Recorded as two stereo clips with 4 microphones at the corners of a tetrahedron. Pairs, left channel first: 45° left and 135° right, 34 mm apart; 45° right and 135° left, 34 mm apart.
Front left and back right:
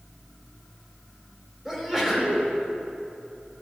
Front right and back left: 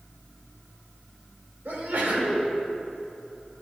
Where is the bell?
No bell in this recording.